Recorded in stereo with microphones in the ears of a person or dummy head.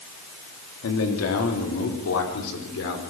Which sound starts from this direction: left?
A man speaking, at 0.8 s.